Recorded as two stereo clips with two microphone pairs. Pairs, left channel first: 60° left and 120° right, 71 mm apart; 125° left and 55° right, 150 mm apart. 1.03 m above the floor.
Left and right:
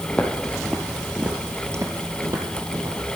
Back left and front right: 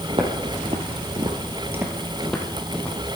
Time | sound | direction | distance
0.1 | footsteps | 10° right | 1.8 m